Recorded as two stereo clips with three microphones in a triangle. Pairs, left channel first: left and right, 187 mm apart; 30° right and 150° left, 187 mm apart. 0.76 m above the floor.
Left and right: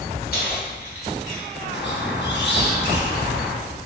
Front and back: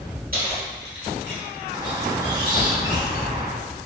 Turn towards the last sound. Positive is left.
turn(degrees=85)